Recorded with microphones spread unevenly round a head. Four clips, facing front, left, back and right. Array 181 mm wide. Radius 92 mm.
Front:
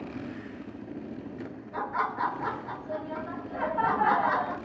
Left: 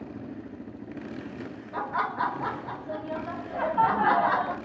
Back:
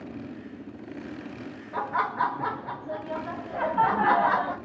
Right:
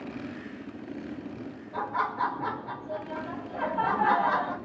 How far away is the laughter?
About 0.7 m.